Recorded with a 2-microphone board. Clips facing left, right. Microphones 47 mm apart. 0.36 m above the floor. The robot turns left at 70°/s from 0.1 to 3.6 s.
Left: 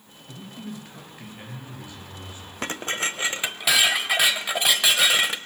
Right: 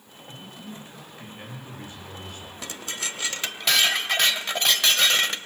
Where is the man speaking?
80° left, 8 m; by 2.5 s 75° right, 8 m.